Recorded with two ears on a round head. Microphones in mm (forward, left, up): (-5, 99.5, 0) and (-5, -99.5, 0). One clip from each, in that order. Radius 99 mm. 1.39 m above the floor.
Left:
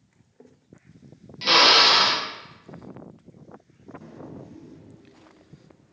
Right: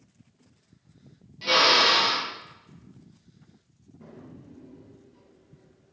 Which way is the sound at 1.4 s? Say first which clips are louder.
Left 4 dB; 35° left (ahead or behind).